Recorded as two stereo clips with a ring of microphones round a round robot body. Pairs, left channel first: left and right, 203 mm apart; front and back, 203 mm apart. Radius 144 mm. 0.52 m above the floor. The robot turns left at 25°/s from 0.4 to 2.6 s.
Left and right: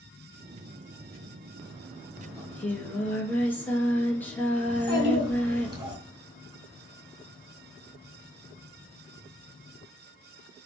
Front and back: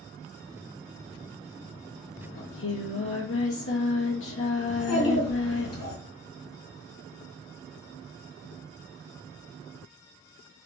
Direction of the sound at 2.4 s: 15° left.